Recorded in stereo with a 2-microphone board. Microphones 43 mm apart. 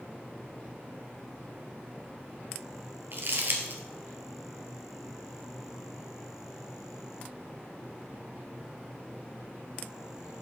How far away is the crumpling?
About 1.5 m.